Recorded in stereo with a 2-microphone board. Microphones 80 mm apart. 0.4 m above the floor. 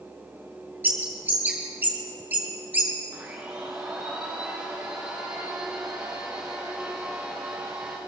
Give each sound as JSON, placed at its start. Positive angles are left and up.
{"t": 0.8, "sound": "a bird", "side_deg": -25, "distance_m": 4.5}
{"t": 3.1, "sound": "a blender", "side_deg": -20, "distance_m": 8.5}